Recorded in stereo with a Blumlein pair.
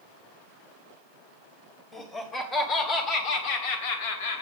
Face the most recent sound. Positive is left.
turn(degrees=65)